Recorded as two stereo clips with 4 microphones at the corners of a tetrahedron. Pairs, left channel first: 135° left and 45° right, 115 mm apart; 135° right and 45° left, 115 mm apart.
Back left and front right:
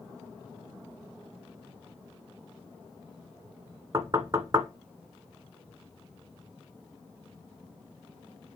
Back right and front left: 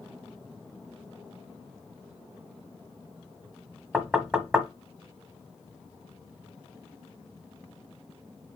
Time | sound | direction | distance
3.9 | knocking | 30° right | 1.2 m